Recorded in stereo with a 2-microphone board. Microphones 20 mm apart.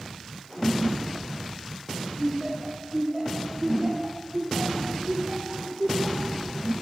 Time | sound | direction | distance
2.2 | laughter | 10° right (ahead or behind) | 3 m